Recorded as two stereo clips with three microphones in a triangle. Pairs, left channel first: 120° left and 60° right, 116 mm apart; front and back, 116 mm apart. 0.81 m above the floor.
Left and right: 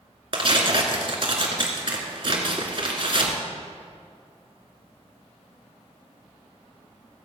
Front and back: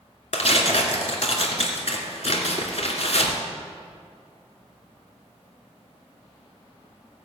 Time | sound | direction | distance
0.3 | tearing paper | 20° right | 2 m